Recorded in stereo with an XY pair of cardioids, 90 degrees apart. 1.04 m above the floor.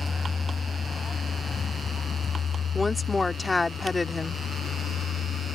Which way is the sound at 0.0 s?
25° left.